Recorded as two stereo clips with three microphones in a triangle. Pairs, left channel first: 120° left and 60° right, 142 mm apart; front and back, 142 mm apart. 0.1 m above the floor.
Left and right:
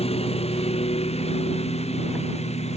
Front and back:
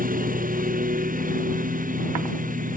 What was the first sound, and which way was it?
A lawn mower, 165° left.